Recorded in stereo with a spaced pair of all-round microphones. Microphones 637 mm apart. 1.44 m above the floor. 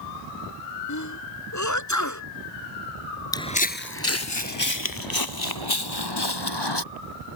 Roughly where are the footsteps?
Centre.